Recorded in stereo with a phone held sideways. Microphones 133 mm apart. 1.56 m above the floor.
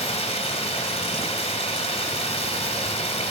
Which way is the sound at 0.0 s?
50° left (ahead or behind).